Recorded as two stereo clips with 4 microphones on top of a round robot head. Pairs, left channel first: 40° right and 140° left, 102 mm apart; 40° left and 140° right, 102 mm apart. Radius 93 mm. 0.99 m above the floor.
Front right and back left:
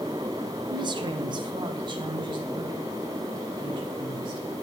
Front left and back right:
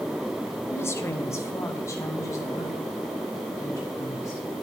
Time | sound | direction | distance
0.7 | a woman speaking | 105° left | 0.8 m